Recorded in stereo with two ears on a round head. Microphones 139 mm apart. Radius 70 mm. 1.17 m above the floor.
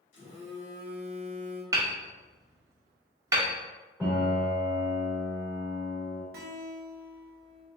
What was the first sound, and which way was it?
A phone buzzing, 55° left (ahead or behind).